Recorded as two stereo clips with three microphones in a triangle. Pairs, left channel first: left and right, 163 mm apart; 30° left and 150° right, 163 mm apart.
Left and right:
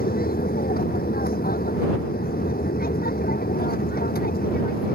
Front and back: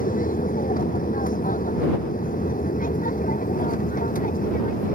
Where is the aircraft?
65° left.